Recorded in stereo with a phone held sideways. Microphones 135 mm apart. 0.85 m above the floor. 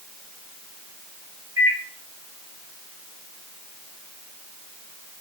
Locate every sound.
1.6 s a microwave: 25° right (ahead or behind), 1.1 m